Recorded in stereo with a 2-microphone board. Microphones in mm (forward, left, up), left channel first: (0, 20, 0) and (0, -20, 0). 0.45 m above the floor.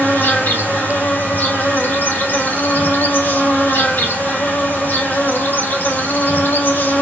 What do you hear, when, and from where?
0.0 s an insect: 70° left (ahead or behind), 4 m